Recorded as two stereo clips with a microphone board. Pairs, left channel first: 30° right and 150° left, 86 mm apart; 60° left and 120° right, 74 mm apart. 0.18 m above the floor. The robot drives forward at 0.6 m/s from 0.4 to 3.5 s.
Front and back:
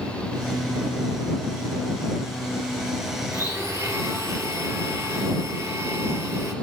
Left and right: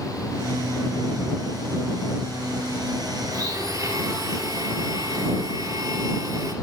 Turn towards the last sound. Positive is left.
turn(degrees=-155)